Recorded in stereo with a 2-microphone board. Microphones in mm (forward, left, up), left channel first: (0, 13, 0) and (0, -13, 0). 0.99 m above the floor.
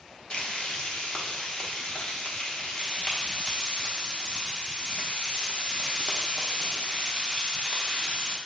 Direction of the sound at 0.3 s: 40° left (ahead or behind).